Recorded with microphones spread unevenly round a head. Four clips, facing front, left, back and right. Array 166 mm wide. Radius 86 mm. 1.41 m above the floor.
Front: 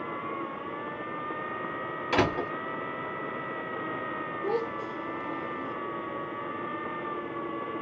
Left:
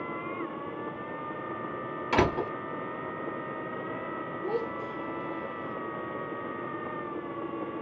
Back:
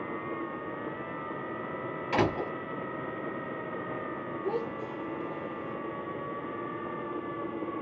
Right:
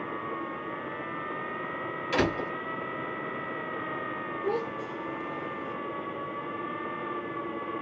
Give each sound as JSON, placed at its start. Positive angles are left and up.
{"t": 2.1, "sound": "a door slam", "azimuth_deg": 45, "distance_m": 2.0}
{"t": 4.4, "sound": "a child speaking", "azimuth_deg": -15, "distance_m": 1.8}